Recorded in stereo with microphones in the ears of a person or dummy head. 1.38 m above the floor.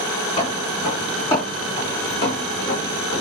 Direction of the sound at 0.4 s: 30° left (ahead or behind).